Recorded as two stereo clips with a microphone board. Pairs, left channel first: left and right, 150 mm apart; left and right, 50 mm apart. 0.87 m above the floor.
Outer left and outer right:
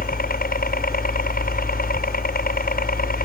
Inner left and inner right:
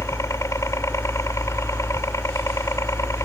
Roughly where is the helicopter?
Left.